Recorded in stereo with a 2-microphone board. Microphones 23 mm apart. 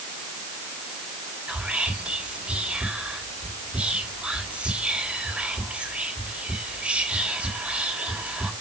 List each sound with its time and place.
1.5 s whispering: 60° right (ahead or behind), 3 m